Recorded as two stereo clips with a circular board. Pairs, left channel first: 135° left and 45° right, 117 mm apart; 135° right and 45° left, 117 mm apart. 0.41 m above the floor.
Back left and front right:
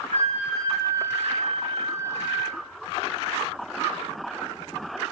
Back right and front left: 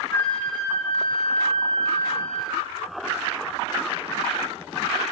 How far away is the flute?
About 3 m.